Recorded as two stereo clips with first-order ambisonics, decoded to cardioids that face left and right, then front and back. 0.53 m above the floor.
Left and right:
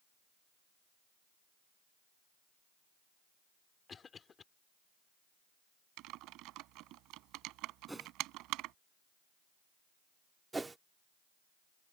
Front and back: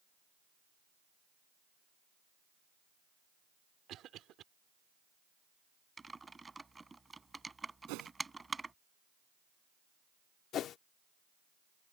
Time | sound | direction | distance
3.9 | a cough | 150° left | ?
6.0 | typing on a keyboard | 100° right | ?
7.9 | a whoosh | 175° right | ?
10.5 | a whoosh | 15° right | ?